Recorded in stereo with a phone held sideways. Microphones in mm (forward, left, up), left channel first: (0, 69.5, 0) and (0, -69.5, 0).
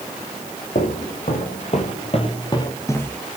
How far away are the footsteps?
About 3 m.